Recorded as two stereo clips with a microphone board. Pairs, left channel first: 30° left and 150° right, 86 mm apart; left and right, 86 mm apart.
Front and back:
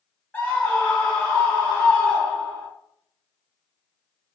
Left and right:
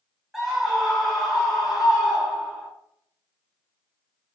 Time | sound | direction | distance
0.3 | a scream | 10° right | 1.0 m